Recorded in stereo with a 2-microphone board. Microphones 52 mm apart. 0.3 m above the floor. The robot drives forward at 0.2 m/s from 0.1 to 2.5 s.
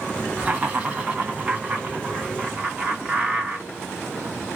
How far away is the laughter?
About 2.5 m.